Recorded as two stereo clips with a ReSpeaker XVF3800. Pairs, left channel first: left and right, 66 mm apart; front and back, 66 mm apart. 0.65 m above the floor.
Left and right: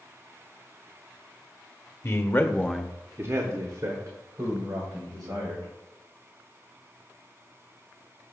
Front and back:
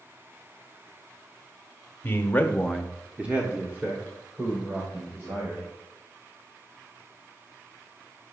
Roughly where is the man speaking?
Ahead left.